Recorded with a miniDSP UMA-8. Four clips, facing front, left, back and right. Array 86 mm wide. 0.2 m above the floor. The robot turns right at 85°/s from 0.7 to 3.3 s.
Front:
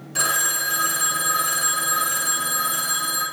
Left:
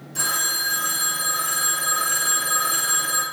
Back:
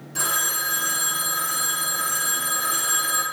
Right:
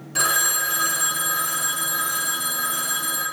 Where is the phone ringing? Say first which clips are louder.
Right 4 dB, front 3 dB; 65° right, 1.0 m; by 3.2 s 150° left, 1.0 m.